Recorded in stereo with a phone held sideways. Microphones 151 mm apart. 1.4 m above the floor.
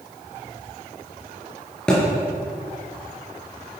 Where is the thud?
5° left (ahead or behind), 5 m.